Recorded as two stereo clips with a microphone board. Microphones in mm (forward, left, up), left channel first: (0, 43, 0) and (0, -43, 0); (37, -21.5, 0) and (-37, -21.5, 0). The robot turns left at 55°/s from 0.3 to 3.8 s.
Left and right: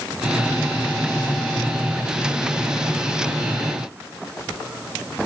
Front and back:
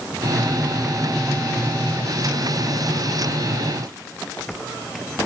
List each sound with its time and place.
Only background noise.